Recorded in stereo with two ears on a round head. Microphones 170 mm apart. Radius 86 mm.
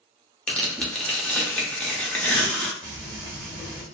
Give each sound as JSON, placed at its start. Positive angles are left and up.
{"t": 0.5, "sound": "tearing paper", "side_deg": 5, "distance_m": 0.8}
{"t": 2.8, "sound": "frying", "side_deg": -5, "distance_m": 1.5}